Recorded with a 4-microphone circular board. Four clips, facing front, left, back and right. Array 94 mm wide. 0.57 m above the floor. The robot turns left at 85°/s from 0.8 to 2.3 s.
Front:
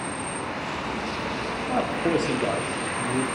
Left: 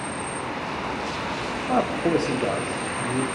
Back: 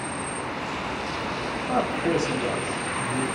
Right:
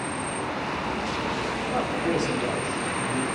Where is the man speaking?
100° left, 1.1 m; by 3.2 s 50° left, 1.1 m.